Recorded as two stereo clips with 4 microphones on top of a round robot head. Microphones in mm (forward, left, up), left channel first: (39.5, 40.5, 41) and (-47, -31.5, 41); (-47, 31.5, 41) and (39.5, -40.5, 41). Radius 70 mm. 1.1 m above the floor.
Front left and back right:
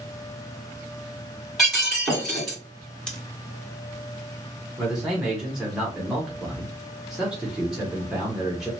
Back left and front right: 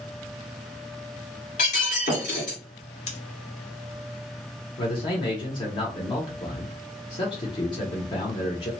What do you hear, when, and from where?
1.6 s breaking glass: 130° left, 1.7 m
3.1 s scissors: 120° left, 0.9 m
4.8 s a man speaking: 140° left, 0.9 m